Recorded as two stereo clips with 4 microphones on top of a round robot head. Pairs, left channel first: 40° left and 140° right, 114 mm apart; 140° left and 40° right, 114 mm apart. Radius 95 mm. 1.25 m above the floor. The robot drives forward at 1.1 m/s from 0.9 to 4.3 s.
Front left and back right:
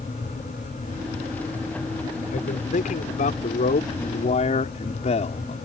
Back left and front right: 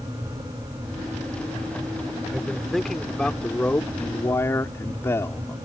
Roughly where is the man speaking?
Ahead left.